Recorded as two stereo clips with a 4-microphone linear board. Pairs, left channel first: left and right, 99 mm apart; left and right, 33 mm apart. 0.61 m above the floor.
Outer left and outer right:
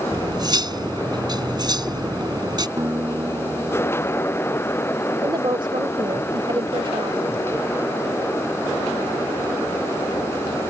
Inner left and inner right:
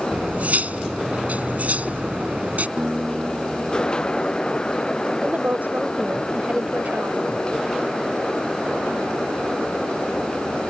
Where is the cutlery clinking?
45° right (ahead or behind).